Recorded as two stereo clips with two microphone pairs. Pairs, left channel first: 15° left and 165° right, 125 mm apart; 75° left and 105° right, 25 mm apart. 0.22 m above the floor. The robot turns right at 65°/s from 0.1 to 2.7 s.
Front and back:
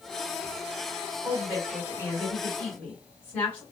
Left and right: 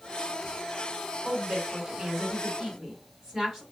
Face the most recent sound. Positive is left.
turn(degrees=-50)